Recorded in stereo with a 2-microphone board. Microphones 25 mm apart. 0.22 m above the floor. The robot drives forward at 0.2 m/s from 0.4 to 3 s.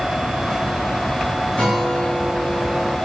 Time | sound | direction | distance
1.6 | a guitar | 30° left (ahead or behind) | 7.5 m